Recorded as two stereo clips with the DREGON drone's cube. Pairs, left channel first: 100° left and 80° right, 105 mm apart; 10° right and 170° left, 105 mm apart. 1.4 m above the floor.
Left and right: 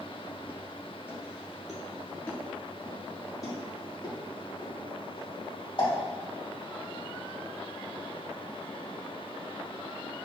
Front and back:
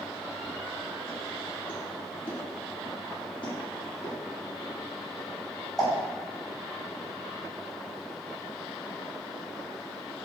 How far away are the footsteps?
About 1.5 m.